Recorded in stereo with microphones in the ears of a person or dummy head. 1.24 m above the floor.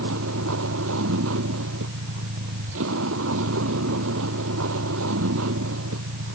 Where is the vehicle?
80° right.